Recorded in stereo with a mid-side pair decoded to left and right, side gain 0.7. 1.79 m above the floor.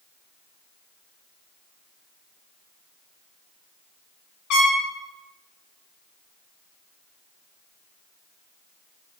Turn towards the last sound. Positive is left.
turn(degrees=55)